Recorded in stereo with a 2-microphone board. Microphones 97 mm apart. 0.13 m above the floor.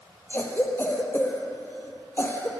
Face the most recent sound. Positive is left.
turn(degrees=20)  # may be behind; listen again after turning